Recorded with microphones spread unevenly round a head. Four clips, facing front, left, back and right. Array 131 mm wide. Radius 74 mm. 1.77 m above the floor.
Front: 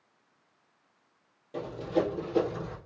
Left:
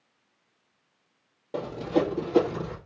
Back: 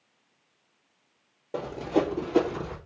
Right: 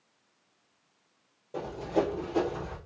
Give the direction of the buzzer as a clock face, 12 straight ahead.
No buzzer in this recording.